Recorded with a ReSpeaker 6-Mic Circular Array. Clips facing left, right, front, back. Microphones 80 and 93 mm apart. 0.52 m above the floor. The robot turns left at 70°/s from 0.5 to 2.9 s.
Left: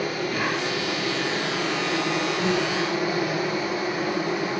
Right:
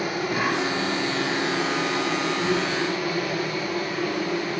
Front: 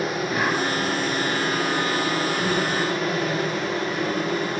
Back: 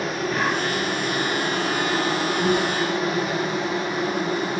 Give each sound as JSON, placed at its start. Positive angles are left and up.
{"t": 0.0, "sound": "an insect", "azimuth_deg": -65, "distance_m": 0.9}